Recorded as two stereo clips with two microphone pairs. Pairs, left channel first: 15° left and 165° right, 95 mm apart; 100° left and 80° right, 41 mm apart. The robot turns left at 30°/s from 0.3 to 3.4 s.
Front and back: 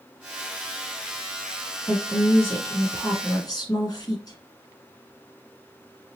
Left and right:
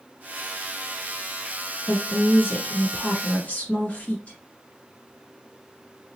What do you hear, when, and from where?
1.9 s a woman speaking: 95° left, 1.9 m; by 4.4 s 50° left, 1.9 m